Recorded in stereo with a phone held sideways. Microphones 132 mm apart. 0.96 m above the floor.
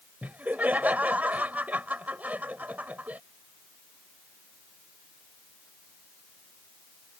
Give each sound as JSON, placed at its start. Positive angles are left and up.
{"t": 0.2, "sound": "laughter", "side_deg": -10}